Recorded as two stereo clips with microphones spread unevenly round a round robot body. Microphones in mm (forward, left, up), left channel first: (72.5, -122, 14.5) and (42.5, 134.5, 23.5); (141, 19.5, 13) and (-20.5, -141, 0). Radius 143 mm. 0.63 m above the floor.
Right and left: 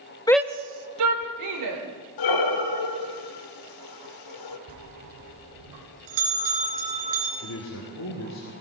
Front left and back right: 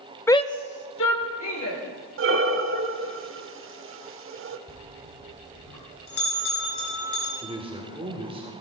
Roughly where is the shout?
Ahead right.